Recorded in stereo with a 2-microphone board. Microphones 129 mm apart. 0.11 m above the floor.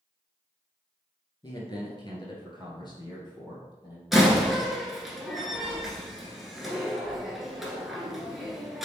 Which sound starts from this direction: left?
A man speaking, at 1.4 s.